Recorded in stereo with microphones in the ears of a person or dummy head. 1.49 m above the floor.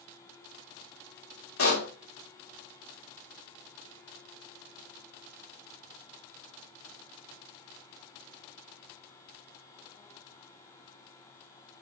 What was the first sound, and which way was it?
A pop, 75° left (ahead or behind).